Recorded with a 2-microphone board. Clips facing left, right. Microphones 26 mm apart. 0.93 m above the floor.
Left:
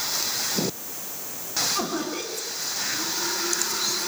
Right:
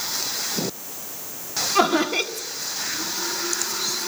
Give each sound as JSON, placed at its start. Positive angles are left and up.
{"t": 1.8, "sound": "laughter", "side_deg": -55, "distance_m": 1.5}